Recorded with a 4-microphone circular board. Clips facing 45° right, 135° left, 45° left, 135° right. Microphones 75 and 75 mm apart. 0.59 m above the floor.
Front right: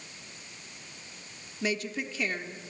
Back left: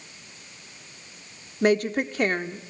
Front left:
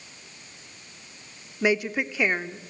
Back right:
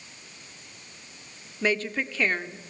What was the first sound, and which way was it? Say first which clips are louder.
A woman speaking: back left 11 dB, front left 3 dB; 120° left.